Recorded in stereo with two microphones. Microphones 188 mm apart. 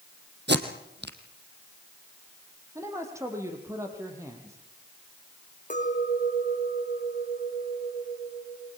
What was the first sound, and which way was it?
Tape being pulled, 70° right (ahead or behind).